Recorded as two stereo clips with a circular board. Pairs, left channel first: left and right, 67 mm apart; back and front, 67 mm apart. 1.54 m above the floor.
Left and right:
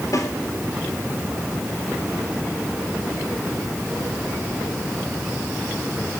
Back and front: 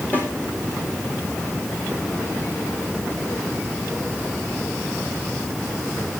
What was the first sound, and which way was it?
A snare drum, 120° left.